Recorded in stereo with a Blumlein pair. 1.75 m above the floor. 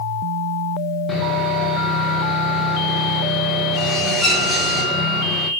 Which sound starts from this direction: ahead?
Sawing, at 1.1 s.